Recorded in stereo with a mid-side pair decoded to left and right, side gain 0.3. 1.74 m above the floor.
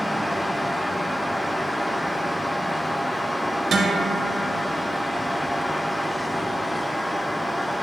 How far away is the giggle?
I don't hear a giggle.